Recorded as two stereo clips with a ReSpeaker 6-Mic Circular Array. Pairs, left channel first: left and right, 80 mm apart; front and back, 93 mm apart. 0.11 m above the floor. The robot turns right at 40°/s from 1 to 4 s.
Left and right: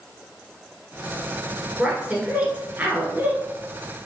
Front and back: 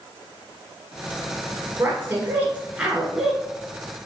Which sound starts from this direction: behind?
A woman speaking, at 1.8 s.